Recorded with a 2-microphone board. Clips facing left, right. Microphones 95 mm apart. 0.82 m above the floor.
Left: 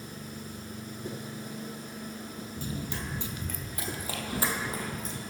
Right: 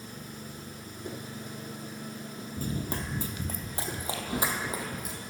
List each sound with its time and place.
2.6 s running footsteps: 45° right (ahead or behind), 1.2 m; by 5.2 s 10° right (ahead or behind), 1.7 m